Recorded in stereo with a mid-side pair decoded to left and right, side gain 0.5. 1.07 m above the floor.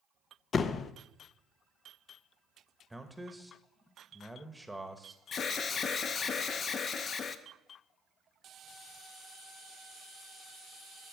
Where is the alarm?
50° left, 0.8 m.